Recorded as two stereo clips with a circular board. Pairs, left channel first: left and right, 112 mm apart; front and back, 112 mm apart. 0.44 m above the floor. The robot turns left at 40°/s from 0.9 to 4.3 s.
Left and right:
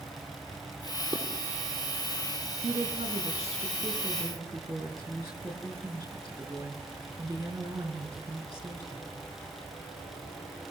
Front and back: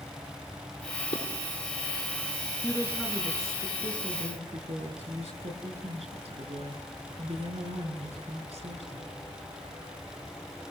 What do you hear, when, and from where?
1.1 s dishes clattering: 10° left, 7.5 m; by 1.2 s 5° left, 7.5 m
2.6 s a woman speaking: 80° right, 6 m; by 9.2 s 145° right, 6 m